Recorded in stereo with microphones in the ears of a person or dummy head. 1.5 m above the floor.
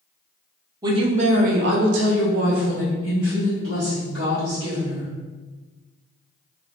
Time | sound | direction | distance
0.8 | a woman speaking | 20° right (ahead or behind) | 0.7 m